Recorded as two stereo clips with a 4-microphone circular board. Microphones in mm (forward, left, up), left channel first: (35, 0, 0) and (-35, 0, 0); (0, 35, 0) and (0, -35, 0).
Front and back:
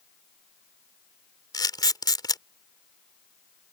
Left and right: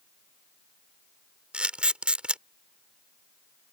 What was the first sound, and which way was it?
A camera shutter, 15° right.